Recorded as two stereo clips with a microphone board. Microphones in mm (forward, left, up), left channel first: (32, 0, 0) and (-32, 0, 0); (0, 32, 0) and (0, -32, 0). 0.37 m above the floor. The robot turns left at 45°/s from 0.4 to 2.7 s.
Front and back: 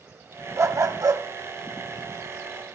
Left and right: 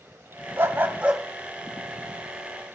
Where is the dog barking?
140° right, 0.7 m; by 1.2 s 170° right, 0.7 m.